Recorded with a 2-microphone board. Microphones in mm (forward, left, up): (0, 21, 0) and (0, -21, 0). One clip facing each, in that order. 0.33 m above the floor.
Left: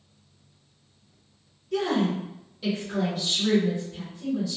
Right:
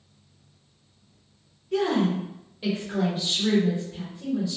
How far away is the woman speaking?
About 1.3 m.